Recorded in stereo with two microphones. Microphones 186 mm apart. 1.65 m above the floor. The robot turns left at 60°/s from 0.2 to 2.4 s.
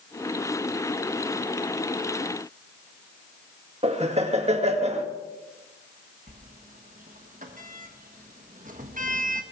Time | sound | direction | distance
3.8 | laughter | 35° right (ahead or behind) | 1.8 m
6.3 | a sliding door | 40° right (ahead or behind) | 1.4 m